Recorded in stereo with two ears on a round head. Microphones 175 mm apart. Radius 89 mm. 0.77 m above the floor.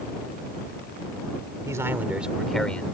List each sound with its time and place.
1.6 s a man speaking: 15° right (ahead or behind); by 2.9 s 5° left (ahead or behind)